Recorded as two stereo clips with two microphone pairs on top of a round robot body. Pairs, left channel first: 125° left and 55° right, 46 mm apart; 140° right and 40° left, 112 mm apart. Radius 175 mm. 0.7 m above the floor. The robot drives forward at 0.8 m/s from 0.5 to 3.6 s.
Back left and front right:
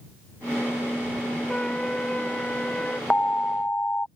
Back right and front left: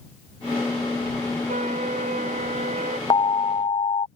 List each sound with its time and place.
1.5 s a trumpet: 55° left; by 3.0 s 60° left
3.1 s an alarm: 175° right; by 4.1 s straight behind